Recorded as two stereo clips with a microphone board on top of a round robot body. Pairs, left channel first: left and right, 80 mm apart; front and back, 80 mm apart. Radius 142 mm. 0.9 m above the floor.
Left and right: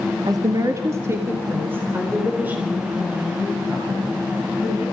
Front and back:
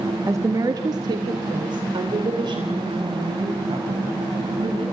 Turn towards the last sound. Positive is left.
turn(degrees=-165)